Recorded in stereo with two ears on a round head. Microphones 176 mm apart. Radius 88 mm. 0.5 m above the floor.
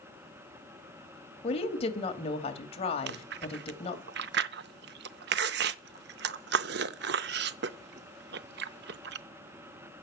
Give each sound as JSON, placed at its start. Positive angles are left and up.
{"t": 1.4, "sound": "a woman speaking", "side_deg": 35, "distance_m": 2.0}
{"t": 3.1, "sound": "chewing", "side_deg": -60, "distance_m": 0.6}